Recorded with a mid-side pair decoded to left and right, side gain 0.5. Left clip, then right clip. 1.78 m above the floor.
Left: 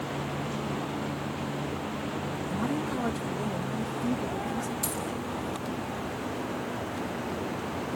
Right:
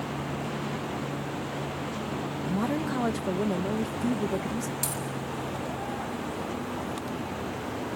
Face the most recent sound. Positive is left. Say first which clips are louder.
# even
turn(degrees=-55)